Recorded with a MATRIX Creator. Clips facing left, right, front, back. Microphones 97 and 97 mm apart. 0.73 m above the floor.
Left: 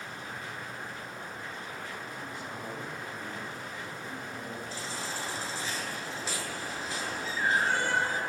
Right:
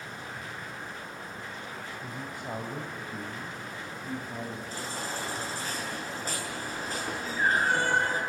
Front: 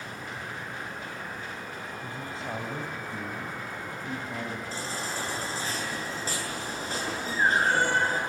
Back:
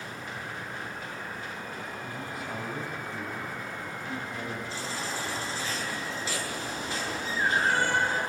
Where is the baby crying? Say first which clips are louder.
Right 2 dB, even; 45° right, 8.5 m.